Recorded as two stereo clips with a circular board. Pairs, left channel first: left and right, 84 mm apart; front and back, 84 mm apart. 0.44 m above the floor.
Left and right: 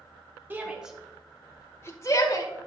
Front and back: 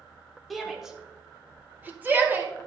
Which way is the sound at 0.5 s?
90° right.